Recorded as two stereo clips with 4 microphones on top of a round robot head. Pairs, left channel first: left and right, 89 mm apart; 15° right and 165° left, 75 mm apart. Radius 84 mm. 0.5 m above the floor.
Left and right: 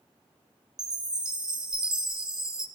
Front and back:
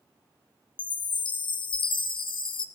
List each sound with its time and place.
0.8 s a chime: 5° right, 1.7 m